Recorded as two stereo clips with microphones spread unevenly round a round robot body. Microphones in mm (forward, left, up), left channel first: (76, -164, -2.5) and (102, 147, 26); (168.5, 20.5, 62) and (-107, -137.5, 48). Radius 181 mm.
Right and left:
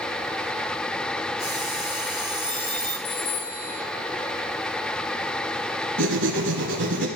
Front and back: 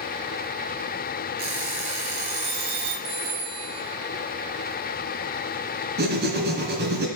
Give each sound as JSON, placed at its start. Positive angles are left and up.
{"t": 1.4, "sound": "an alarm clock", "azimuth_deg": -170, "distance_m": 4.0}
{"t": 3.0, "sound": "a phone ringing", "azimuth_deg": -130, "distance_m": 3.5}
{"t": 6.0, "sound": "writing", "azimuth_deg": 145, "distance_m": 1.9}